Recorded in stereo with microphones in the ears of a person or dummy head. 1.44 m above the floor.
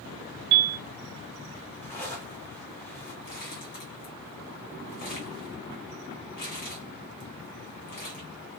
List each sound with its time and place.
0.5 s a piano: 55° right (ahead or behind), 0.9 m
1.8 s a zipper: 5° left (ahead or behind), 1.6 m
3.2 s crumpling: 40° left (ahead or behind), 1.4 m